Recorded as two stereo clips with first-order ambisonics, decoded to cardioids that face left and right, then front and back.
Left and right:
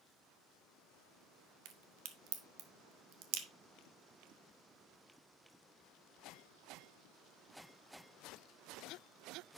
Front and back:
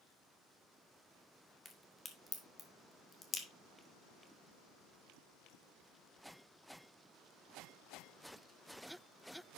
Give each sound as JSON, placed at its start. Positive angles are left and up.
{"t": 1.6, "sound": "a crack", "azimuth_deg": -70, "distance_m": 1.0}